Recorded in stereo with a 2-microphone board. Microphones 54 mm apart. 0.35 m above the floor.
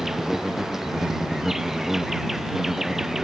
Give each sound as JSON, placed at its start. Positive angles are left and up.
{"t": 0.0, "sound": "an insect", "side_deg": -5}